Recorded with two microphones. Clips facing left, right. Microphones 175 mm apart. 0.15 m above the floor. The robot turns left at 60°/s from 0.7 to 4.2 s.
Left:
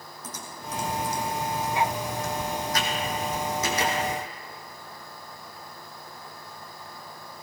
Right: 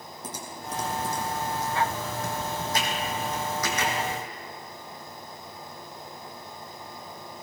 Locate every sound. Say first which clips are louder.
0.2 s typing on a keyboard: right 1 dB; 30° right (ahead or behind), 2.5 m; by 3.9 s 45° left (ahead or behind), 2.5 m